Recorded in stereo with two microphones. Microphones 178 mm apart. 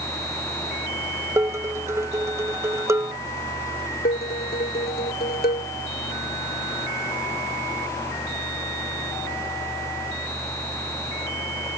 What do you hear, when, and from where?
1.4 s dishes clattering: 15° right (ahead or behind)
4.0 s dishes clattering: 60° left (ahead or behind)